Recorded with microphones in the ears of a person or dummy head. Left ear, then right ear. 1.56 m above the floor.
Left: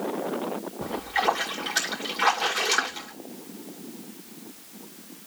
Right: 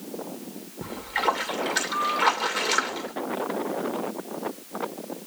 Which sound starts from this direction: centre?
A splash, at 0.8 s.